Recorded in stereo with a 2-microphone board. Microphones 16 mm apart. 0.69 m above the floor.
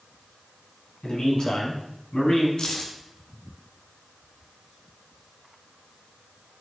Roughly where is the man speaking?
Left.